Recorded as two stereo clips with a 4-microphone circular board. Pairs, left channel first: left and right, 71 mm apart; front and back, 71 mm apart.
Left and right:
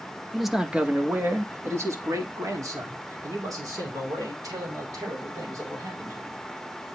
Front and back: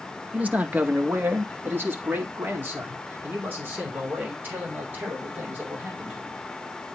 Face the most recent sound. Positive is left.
turn(degrees=-115)